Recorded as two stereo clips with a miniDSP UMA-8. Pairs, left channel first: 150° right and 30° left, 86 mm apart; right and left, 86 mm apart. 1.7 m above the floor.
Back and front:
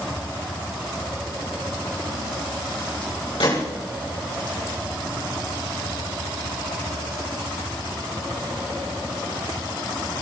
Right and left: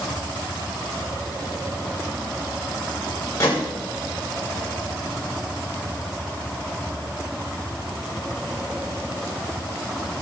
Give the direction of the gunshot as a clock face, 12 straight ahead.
5 o'clock.